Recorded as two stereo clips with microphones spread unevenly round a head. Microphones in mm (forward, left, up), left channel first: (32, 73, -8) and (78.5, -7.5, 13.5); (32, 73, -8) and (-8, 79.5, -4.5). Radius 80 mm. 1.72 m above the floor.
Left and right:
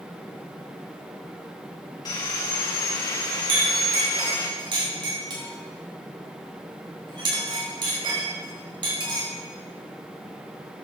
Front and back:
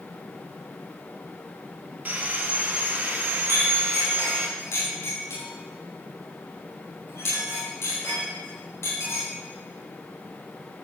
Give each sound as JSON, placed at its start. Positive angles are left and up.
{"t": 2.0, "sound": "sawing", "azimuth_deg": 180, "distance_m": 1.4}
{"t": 3.5, "sound": "a clink", "azimuth_deg": -30, "distance_m": 5.0}